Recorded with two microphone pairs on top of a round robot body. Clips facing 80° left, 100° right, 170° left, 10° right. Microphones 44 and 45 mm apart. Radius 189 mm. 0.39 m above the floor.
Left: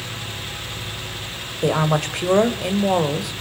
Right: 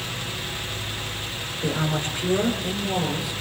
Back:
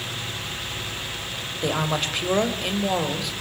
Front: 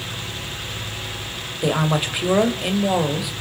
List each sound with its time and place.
1.6 s a woman speaking: 70° left, 2 m